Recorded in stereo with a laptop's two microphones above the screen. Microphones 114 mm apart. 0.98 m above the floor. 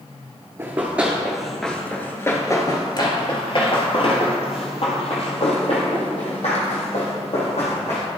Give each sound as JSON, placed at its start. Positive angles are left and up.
{"t": 0.6, "sound": "running footsteps", "side_deg": -20, "distance_m": 1.2}